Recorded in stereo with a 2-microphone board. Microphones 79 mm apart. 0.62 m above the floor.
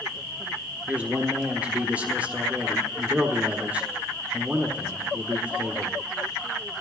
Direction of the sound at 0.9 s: 20° right (ahead or behind).